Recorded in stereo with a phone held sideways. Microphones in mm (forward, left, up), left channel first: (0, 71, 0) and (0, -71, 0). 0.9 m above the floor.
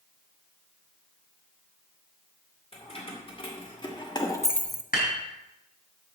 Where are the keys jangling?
40° left (ahead or behind), 3 m; by 4.8 s 10° right (ahead or behind), 0.5 m.